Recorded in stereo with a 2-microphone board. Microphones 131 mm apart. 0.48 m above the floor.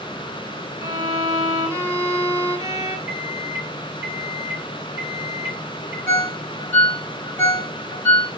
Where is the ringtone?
15° left (ahead or behind), 1.1 m.